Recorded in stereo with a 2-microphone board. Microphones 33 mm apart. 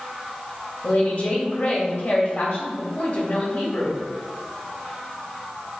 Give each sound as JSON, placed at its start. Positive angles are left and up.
{"t": 0.8, "sound": "a woman speaking", "side_deg": 55, "distance_m": 2.5}